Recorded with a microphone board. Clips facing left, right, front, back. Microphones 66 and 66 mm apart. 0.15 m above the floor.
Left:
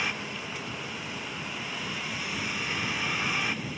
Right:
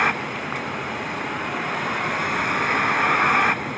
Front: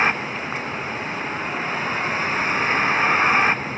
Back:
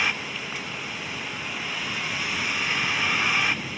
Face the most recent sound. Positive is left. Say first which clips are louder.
# right 11 dB, front 6 dB
turn(degrees=-55)